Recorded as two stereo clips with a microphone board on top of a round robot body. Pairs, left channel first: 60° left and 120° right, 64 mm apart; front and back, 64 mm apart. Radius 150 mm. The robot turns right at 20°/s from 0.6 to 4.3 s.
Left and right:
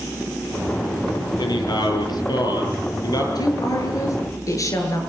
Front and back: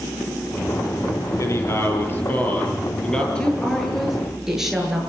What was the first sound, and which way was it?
A man speaking, 45° left.